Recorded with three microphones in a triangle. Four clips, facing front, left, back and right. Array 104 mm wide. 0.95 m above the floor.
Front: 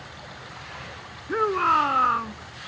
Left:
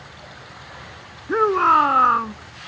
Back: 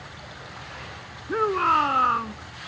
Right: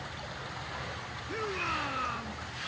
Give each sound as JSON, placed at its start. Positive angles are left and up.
{"t": 1.3, "sound": "a shout", "azimuth_deg": 90}